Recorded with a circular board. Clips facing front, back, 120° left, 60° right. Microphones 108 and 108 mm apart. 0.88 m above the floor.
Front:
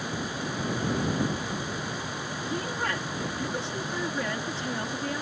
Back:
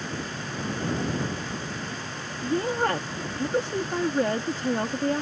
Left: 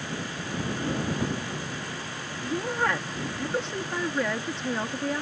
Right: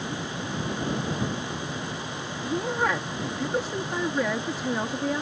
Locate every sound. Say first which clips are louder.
2.4 s a woman speaking: back 8 dB, right 1 dB; 140° right